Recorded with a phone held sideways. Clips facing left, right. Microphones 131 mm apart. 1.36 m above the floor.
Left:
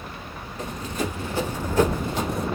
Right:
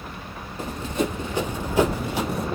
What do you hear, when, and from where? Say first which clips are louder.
0.6 s running footsteps: right 3 dB; 30° right (ahead or behind), 1.5 m; by 2.5 s centre (ahead or behind), 2 m